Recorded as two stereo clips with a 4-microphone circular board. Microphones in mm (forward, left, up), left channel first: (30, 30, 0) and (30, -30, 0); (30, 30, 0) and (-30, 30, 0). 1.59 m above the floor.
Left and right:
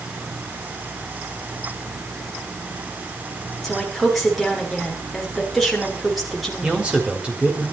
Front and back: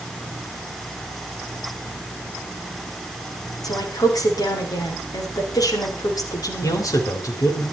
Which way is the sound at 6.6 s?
20° right.